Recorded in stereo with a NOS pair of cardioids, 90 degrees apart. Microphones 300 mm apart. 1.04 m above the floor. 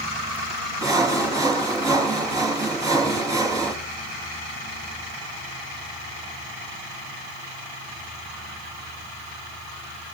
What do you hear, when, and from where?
0.8 s sawing: 10° right, 5 m